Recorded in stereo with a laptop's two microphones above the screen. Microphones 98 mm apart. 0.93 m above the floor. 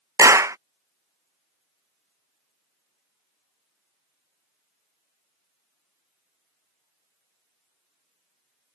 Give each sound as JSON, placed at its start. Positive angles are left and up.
{"t": 0.2, "sound": "a clap", "side_deg": -35}